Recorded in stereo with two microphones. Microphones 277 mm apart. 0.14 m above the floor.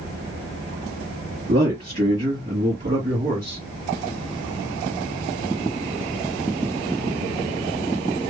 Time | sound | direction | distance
1.5 | a man speaking | 40° right (ahead or behind) | 1.9 m